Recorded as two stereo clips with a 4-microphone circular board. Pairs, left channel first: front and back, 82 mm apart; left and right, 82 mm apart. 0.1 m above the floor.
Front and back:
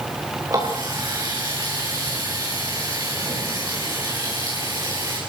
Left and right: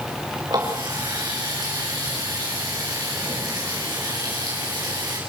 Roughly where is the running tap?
Behind right.